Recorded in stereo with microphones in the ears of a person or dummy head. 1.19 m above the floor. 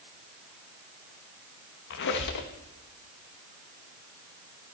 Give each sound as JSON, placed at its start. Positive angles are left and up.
{"t": 1.9, "sound": "a squeak", "side_deg": 60, "distance_m": 1.1}